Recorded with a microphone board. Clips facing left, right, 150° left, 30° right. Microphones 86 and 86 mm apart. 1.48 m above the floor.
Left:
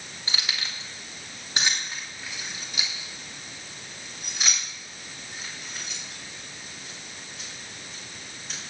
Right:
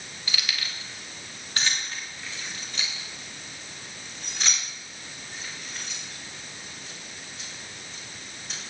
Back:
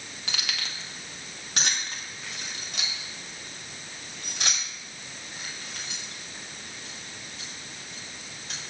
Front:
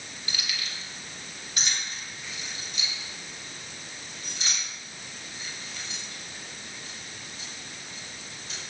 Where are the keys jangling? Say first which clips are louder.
Even, back 2 dB; 150° left, 1.7 m; by 8.6 s straight behind, 6 m.